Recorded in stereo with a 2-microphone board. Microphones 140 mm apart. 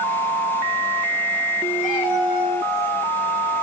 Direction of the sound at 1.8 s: 75° left (ahead or behind).